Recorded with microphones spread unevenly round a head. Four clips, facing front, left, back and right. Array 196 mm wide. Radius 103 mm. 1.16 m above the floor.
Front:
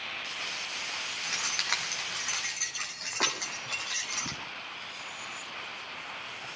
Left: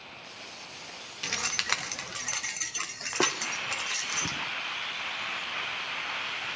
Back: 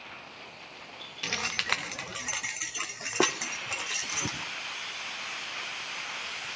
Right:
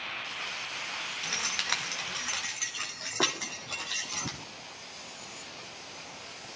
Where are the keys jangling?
155° left, 0.8 m; by 4.4 s 165° left, 3 m.